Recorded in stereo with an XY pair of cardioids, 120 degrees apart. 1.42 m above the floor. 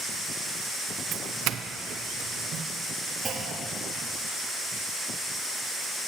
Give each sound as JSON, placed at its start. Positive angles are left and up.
{"t": 1.1, "sound": "a doorbell", "azimuth_deg": -65, "distance_m": 0.5}
{"t": 3.2, "sound": "a clunk", "azimuth_deg": -25, "distance_m": 1.3}